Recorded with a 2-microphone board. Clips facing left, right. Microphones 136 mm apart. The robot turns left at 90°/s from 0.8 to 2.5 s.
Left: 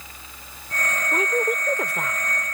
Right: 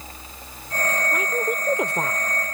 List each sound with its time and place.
1.1 s a woman speaking: 40° left; by 2.2 s 60° right